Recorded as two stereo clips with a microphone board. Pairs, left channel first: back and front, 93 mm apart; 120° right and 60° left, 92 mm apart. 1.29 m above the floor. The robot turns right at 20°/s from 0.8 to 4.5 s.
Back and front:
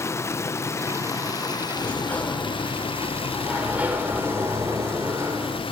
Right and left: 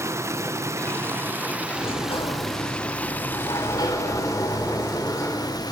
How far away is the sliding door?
About 3 m.